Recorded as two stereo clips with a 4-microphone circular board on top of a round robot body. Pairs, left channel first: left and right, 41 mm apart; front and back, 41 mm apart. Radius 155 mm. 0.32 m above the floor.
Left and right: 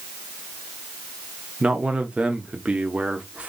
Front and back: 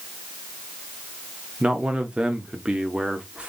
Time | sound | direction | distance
1.6 | a man speaking | 135° right | 0.9 m